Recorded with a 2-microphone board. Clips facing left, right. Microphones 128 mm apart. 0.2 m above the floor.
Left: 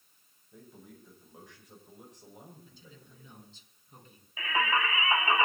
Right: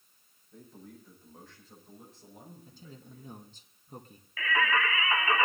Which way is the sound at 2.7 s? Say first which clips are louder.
Right 5 dB; 45° right (ahead or behind).